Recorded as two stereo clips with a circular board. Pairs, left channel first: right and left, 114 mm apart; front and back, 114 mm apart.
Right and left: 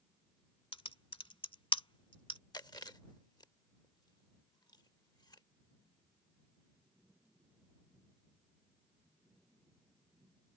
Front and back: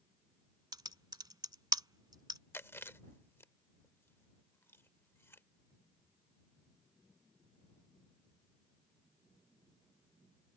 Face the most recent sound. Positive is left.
turn(degrees=-60)